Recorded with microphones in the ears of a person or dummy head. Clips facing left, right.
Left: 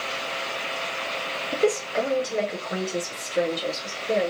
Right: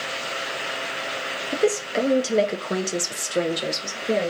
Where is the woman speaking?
10° right (ahead or behind), 0.7 m; by 4.3 s 50° right (ahead or behind), 1.2 m.